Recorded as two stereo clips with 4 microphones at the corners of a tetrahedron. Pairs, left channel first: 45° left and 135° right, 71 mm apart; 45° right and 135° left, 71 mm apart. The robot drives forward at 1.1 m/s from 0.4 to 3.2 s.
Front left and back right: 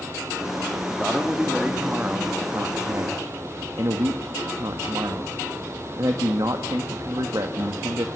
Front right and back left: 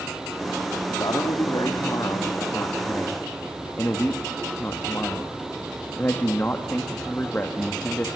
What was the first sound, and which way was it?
A man speaking, 45° right.